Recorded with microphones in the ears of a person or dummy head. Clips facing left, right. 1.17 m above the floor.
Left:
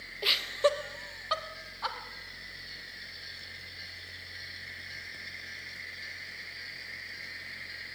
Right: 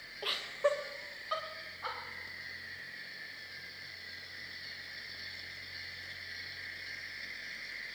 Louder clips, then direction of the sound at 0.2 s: Left 4 dB; 25° left (ahead or behind).